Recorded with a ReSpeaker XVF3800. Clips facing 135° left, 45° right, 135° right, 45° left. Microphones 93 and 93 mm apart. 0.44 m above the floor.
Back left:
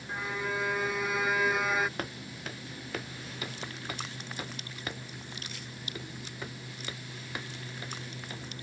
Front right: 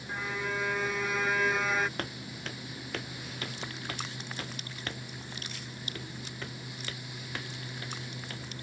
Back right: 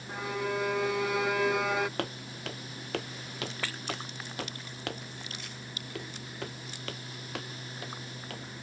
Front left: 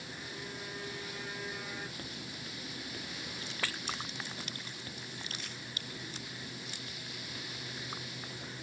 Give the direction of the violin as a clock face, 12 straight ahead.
5 o'clock.